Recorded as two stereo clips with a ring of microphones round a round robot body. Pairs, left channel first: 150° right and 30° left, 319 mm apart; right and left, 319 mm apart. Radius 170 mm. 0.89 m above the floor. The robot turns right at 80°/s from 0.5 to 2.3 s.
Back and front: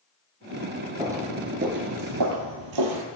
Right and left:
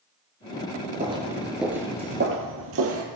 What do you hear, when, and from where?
1.0 s footsteps: 85° left, 0.9 m; by 3.0 s 45° left, 1.8 m